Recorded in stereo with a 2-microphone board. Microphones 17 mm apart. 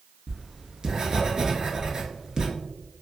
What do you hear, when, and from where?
0.3 s writing: 35° right (ahead or behind), 0.7 m